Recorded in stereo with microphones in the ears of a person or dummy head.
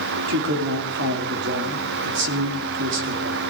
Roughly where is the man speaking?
Right.